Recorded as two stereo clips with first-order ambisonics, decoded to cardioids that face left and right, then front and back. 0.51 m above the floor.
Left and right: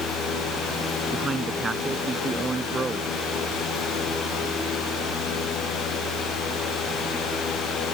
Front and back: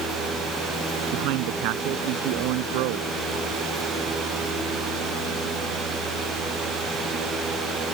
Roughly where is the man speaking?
Behind.